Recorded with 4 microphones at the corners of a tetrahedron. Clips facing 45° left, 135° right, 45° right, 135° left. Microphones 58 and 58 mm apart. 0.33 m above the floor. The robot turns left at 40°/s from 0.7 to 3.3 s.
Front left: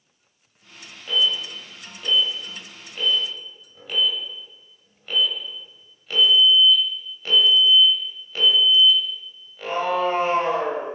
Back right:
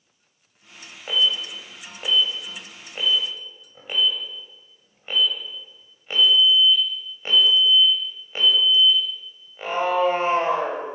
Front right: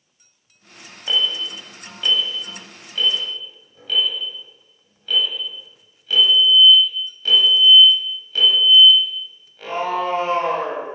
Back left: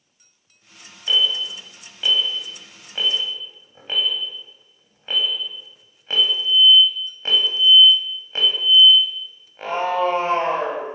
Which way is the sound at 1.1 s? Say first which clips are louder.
Even, back left 1 dB; 100° right.